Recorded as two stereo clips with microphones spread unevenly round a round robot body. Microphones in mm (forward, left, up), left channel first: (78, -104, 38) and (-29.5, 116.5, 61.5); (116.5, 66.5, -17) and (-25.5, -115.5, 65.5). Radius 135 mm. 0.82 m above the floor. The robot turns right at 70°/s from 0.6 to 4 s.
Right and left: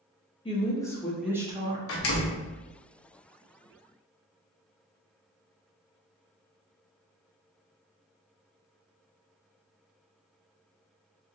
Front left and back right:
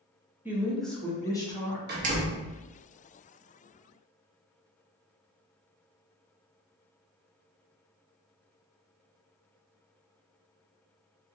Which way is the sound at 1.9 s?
75° right.